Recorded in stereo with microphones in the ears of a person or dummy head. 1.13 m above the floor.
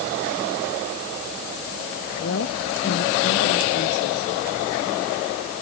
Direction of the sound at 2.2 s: 65° left (ahead or behind).